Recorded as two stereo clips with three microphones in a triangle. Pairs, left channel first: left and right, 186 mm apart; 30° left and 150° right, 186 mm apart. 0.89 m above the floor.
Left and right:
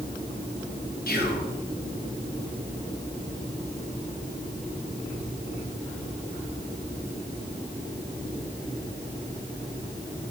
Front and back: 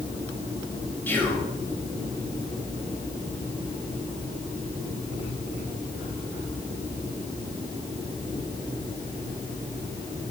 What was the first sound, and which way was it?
Whispering, 105° left.